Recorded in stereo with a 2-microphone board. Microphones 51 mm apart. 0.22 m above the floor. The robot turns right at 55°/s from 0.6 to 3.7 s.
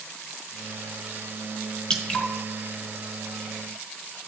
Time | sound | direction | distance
1.9 | dripping | 15° left (ahead or behind) | 1.7 m